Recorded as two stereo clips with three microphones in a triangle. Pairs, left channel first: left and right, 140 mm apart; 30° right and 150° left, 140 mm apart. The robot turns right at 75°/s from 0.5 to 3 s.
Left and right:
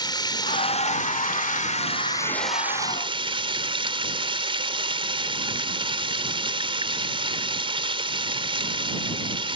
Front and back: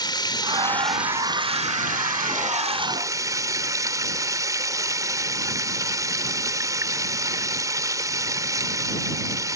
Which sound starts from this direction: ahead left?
Running water, at 0.0 s.